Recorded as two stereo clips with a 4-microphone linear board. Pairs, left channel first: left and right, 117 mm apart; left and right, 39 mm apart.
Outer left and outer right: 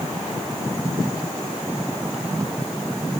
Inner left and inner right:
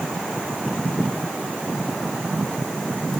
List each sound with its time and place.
Only background noise.